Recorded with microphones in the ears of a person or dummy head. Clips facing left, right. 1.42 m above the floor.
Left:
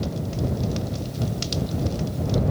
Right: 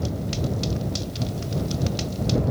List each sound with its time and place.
Only background noise.